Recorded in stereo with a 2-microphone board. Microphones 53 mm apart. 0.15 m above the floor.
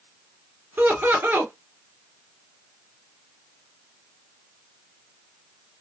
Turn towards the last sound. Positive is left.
turn(degrees=-45)  # may be behind; listen again after turning